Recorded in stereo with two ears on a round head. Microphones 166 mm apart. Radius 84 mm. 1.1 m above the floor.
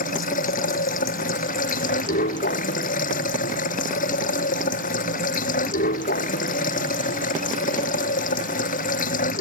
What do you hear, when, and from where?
0.0 s running water: 45° left (ahead or behind)